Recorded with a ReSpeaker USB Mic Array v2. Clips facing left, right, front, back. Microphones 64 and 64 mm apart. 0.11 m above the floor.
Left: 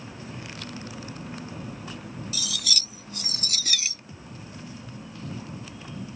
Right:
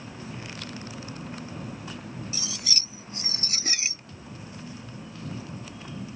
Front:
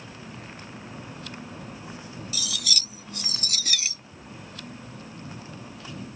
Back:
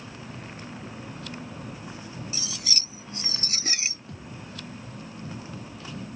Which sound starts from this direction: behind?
A thud, at 4.1 s.